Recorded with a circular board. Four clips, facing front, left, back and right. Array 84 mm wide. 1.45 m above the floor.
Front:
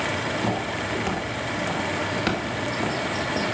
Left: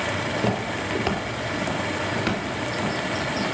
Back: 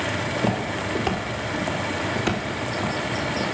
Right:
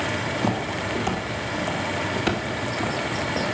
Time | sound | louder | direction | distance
0.4 | footsteps | even, back 1 dB | 115° left | 1.8 m